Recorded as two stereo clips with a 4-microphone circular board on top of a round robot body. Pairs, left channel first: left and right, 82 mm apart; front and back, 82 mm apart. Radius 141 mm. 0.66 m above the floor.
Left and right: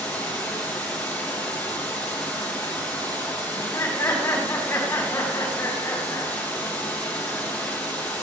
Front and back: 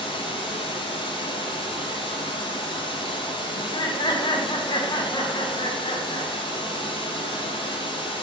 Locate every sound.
0.0 s running water: 20° left, 4.5 m
3.5 s laughter: 30° left, 5 m